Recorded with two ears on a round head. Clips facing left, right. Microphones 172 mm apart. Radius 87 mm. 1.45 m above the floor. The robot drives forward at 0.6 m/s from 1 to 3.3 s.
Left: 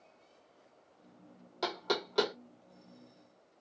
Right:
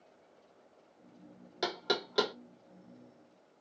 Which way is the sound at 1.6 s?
15° right (ahead or behind).